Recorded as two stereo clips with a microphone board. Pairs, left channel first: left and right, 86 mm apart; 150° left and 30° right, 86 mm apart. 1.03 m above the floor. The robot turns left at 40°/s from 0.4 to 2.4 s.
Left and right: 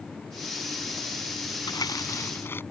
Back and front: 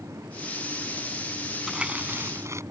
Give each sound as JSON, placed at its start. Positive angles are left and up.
{"t": 1.7, "sound": "crumpling", "azimuth_deg": 55}